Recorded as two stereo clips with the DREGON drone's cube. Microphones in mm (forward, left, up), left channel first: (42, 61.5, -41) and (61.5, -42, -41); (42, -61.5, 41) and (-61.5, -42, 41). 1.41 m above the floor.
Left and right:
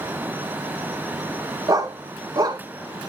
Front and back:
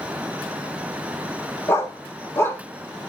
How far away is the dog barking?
About 1.0 m.